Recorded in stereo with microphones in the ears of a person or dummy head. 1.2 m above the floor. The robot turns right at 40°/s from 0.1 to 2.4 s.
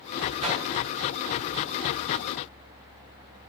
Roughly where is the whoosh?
Right.